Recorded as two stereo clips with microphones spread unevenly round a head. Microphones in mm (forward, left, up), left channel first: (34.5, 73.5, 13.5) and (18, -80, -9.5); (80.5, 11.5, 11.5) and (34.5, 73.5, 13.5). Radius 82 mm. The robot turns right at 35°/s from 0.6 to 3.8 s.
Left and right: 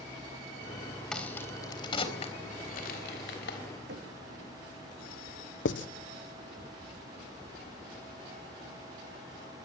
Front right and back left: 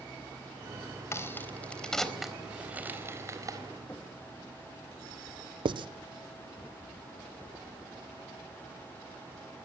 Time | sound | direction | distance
1.1 | a crack | straight ahead | 3.5 m
3.9 | knocking | 125° right | 2 m
5.7 | writing | 110° left | 0.7 m